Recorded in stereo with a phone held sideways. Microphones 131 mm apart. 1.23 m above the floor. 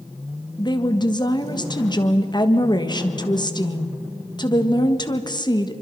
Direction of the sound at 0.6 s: 35° left (ahead or behind).